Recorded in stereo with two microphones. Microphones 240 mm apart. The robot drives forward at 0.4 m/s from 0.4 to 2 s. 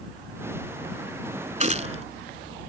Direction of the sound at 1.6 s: 30° right (ahead or behind).